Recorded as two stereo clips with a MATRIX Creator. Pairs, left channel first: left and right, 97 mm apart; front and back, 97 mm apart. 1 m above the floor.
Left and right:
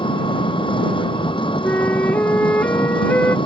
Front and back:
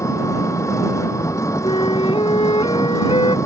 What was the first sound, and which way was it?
An engine running, 60° left.